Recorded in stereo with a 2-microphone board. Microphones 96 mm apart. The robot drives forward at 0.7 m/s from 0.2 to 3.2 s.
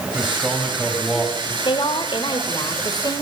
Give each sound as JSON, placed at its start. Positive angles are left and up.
{"t": 0.1, "sound": "a man speaking", "side_deg": -5, "distance_m": 4.0}
{"t": 1.6, "sound": "a woman speaking", "side_deg": 65, "distance_m": 2.5}